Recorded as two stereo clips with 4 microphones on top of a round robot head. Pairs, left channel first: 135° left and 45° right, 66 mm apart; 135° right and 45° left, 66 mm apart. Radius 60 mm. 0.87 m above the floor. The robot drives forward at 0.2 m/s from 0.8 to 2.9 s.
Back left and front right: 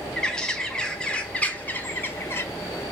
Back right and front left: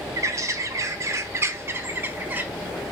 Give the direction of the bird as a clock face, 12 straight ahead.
10 o'clock.